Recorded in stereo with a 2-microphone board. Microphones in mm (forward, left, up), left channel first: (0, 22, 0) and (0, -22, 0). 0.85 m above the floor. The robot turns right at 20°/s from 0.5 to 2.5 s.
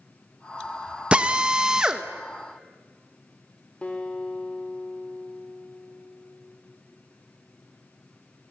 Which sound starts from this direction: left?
A guitar, at 3.8 s.